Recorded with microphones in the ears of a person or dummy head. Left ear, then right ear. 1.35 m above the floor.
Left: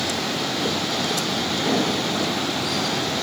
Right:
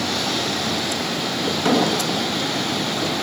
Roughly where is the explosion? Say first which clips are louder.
Right 6 dB; right.